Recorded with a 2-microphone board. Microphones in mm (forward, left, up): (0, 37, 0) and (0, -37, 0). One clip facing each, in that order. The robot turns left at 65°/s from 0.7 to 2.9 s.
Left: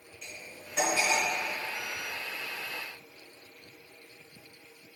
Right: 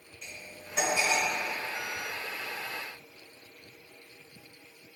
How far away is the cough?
No cough in this recording.